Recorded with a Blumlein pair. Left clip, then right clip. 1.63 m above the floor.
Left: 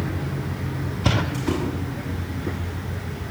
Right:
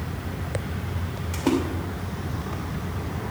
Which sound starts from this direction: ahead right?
A splash, at 1.3 s.